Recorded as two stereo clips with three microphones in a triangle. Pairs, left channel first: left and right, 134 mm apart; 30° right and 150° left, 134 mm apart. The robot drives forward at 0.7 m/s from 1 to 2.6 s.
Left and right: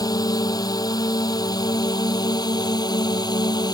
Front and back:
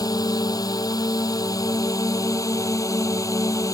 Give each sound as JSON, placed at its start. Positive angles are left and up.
{"t": 0.0, "sound": "a drone", "azimuth_deg": 30}